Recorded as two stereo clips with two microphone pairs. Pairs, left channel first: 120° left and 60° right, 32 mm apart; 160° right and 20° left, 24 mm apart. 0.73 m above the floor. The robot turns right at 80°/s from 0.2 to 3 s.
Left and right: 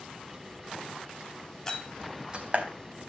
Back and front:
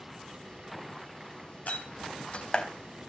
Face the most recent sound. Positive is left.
turn(degrees=-65)